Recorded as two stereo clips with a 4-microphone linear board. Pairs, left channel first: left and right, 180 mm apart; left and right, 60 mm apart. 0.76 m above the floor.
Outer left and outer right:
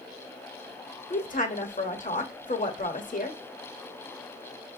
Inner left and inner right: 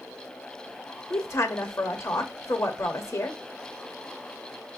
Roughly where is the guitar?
I don't hear a guitar.